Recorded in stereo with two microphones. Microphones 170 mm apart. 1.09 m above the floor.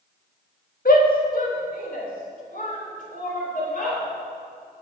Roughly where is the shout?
Left.